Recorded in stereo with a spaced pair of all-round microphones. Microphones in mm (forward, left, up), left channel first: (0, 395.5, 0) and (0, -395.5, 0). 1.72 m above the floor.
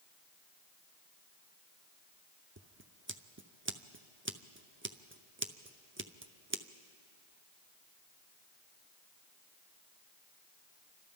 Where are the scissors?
15° right (ahead or behind), 0.6 m.